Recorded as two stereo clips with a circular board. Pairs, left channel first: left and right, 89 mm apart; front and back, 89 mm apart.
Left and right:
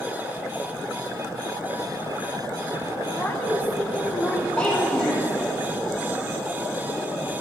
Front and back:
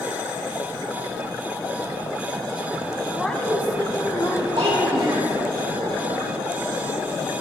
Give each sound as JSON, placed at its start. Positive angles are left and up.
{"t": 3.1, "sound": "a woman speaking", "azimuth_deg": 80, "distance_m": 1.3}
{"t": 4.6, "sound": "a child speaking", "azimuth_deg": 170, "distance_m": 4.5}